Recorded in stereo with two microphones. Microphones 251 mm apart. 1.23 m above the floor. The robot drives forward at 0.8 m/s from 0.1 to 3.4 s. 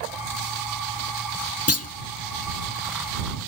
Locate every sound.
1.7 s a clunk: 70° left (ahead or behind), 0.5 m; by 1.9 s 75° left (ahead or behind), 0.5 m